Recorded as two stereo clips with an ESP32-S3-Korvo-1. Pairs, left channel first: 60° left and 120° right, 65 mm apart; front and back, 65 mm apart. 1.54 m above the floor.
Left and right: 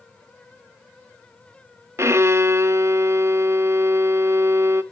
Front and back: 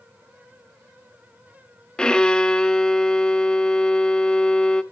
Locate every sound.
2.0 s a violin: 75° right, 0.6 m